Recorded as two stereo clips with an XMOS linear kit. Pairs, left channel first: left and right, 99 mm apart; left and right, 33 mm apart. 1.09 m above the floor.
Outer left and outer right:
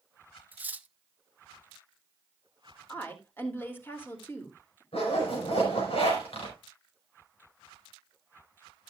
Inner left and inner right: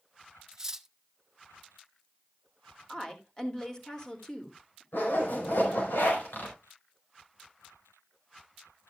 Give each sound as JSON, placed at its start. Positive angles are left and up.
{"t": 0.5, "sound": "cutlery clinking", "side_deg": -15, "distance_m": 0.6}
{"t": 2.9, "sound": "a woman speaking", "side_deg": 20, "distance_m": 2.5}
{"t": 4.9, "sound": "a zipper", "side_deg": 80, "distance_m": 5.0}